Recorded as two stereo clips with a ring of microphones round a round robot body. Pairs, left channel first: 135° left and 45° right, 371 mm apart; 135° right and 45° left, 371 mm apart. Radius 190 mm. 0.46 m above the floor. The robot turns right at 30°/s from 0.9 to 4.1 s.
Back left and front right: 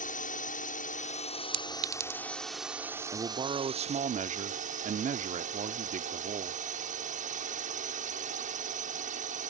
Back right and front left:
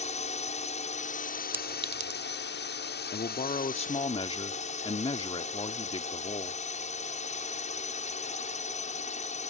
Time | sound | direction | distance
0.0 | a drone | 175° left | ?
1.5 | a clink | 40° right | ?
3.1 | a man speaking | 110° right | ?